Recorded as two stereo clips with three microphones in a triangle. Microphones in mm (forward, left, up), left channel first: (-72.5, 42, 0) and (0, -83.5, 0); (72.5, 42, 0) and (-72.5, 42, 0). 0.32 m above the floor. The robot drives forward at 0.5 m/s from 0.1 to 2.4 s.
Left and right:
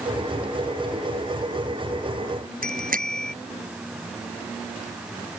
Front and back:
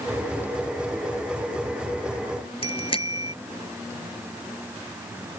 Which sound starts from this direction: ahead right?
A bicycle bell, at 2.6 s.